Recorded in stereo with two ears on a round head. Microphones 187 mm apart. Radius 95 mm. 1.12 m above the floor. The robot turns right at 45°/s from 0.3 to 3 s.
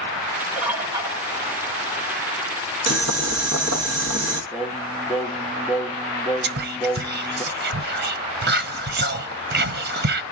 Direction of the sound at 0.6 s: Centre (ahead or behind).